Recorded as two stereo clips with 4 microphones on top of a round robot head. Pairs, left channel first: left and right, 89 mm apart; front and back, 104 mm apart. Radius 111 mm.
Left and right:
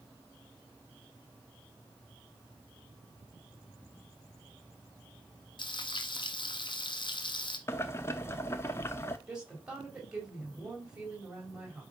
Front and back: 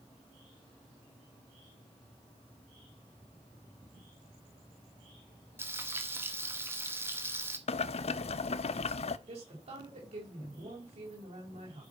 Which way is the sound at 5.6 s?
115° left.